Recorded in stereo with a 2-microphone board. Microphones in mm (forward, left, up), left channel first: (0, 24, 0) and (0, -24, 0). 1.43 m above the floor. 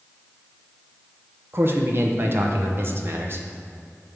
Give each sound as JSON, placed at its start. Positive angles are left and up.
{"t": 1.5, "sound": "a man speaking", "side_deg": -50, "distance_m": 1.0}